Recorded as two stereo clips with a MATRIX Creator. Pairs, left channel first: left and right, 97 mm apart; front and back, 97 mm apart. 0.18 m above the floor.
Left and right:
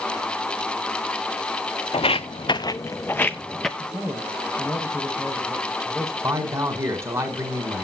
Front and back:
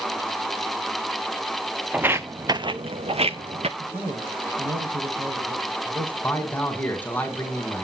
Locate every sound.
1.9 s footsteps: 105° left, 0.7 m; by 3.7 s straight behind, 0.9 m
3.8 s a man speaking: straight behind, 6.5 m
6.2 s a man speaking: 60° right, 1.8 m